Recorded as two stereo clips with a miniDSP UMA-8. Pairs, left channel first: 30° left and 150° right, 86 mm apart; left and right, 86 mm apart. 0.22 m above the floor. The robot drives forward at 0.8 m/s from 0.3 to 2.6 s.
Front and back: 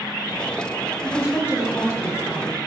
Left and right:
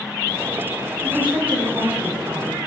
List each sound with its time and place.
1.0 s a woman speaking: 25° right, 2 m; by 2.6 s 75° right, 1.6 m